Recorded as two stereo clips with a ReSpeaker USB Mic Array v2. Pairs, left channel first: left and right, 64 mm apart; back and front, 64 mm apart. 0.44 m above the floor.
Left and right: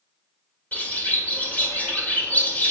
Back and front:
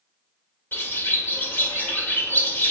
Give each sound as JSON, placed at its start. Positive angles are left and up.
{"t": 0.7, "sound": "a bird", "azimuth_deg": 140, "distance_m": 1.5}